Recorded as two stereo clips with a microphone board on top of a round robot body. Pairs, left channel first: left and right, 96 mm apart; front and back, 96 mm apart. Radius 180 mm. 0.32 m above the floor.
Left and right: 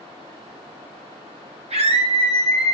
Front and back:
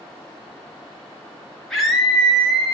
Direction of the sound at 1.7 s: 90° right.